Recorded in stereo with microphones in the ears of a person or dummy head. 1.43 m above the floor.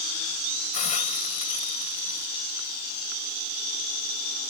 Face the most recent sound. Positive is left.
turn(degrees=35)  # may be behind; listen again after turning